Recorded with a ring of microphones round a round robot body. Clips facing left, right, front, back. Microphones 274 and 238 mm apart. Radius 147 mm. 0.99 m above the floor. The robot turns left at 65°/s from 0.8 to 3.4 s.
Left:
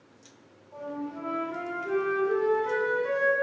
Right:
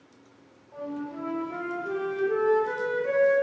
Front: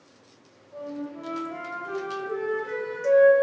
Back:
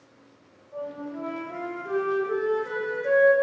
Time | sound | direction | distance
0.7 | a flute | 105° right | 0.5 m